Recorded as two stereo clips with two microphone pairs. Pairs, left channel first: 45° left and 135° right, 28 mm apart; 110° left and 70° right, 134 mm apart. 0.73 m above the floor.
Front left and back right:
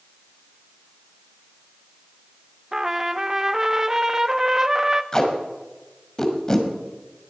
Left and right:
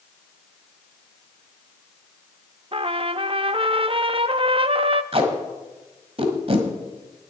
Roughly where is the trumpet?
Right.